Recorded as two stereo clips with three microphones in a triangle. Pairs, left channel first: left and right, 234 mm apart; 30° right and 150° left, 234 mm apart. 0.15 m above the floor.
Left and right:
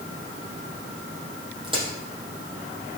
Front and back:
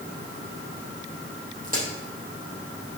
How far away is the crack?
About 4 m.